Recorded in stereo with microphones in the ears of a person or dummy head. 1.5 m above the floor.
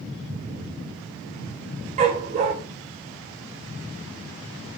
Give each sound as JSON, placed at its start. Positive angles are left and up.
{"t": 2.0, "sound": "a dog barking", "side_deg": -30, "distance_m": 1.6}